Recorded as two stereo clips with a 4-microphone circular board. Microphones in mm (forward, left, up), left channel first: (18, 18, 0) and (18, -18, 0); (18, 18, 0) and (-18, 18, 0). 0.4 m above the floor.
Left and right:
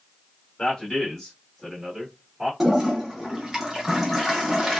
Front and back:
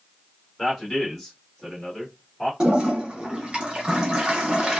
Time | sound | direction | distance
0.6 | a man speaking | 95° left | 1.4 m
2.6 | a toilet flushing | 160° right | 0.8 m